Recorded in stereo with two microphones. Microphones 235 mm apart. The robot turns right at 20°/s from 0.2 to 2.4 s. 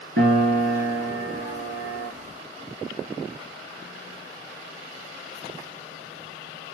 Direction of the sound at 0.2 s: 115° right.